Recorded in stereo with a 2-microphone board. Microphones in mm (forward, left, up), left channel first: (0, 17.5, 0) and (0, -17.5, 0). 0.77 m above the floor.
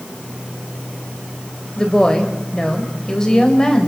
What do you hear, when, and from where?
1.8 s a woman speaking: 15° left (ahead or behind), 4.5 m